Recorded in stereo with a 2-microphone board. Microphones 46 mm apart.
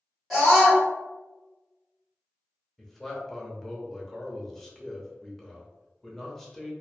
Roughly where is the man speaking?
Centre.